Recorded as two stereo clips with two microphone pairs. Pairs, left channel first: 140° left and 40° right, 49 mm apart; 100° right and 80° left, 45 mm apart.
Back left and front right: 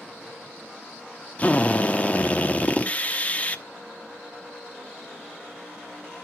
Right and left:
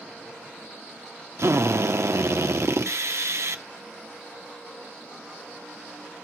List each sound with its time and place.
1.4 s a drill: 80° left, 1.0 m